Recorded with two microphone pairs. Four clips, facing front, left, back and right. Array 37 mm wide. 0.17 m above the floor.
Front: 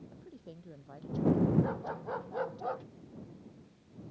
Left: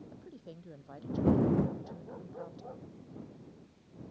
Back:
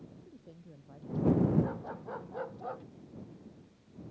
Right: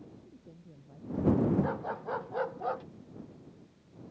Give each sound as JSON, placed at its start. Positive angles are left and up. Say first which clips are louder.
{"t": 0.1, "sound": "a woman speaking", "louder": "left 4 dB, front 3 dB", "azimuth_deg": 60}
{"t": 1.6, "sound": "a dog barking", "louder": "right 6 dB, front 2 dB", "azimuth_deg": -75}